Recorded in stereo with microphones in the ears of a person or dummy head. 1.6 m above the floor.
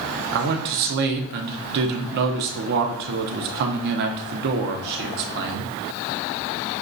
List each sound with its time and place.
0.3 s a man speaking: 50° right (ahead or behind), 0.6 m